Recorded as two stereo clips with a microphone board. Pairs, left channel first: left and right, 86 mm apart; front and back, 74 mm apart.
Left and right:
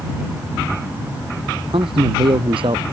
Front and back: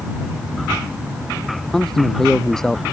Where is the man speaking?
80° right.